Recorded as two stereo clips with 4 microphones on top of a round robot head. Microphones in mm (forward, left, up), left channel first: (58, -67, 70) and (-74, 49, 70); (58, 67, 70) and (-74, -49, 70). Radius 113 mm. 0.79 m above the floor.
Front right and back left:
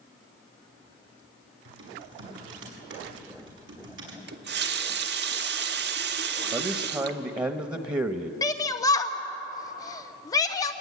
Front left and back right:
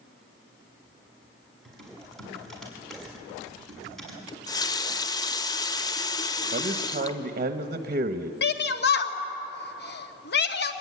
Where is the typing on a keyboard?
130° left, 6 m.